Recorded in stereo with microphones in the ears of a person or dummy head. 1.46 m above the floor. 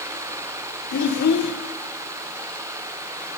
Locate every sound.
0.9 s a child speaking: 55° left (ahead or behind), 1.0 m